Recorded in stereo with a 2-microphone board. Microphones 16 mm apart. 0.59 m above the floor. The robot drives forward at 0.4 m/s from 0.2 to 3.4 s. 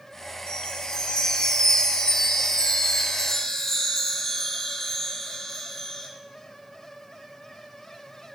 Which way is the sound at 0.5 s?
85° left.